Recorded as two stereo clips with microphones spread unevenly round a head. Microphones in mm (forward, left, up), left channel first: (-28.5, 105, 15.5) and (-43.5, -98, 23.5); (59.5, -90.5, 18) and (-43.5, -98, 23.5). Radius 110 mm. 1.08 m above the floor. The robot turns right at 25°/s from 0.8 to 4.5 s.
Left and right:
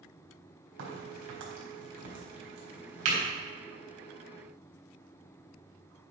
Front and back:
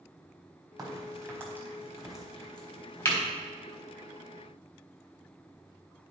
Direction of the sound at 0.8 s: 125° right.